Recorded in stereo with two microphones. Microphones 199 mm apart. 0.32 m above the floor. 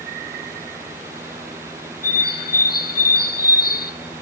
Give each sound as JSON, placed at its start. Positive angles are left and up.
{"t": 2.0, "sound": "a bird", "side_deg": 50, "distance_m": 1.0}